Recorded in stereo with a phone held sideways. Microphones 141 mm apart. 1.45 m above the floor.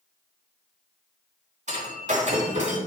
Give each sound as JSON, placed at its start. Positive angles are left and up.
{"t": 1.7, "sound": "breaking glass", "side_deg": -55, "distance_m": 2.5}